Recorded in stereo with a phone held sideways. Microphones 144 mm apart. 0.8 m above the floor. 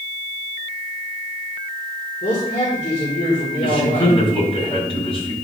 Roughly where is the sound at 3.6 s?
Left.